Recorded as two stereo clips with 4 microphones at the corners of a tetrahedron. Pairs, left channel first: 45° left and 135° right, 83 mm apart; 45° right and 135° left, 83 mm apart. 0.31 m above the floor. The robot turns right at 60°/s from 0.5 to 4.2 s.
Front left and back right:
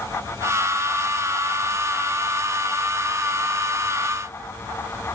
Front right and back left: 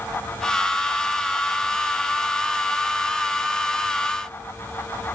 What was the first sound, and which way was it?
Only background noise.